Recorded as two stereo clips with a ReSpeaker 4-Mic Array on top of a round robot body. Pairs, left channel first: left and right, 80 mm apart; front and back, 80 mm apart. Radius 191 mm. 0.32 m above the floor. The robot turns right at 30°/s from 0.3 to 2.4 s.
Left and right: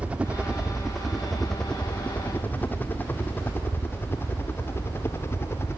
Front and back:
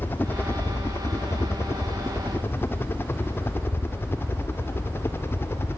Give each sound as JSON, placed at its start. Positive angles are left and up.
{"t": 0.0, "sound": "a helicopter", "azimuth_deg": -35}